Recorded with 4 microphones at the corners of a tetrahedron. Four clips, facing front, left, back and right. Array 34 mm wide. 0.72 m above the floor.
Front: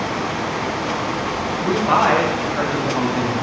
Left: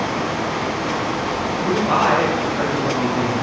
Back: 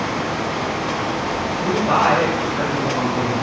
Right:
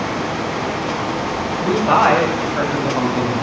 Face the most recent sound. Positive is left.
turn(degrees=-60)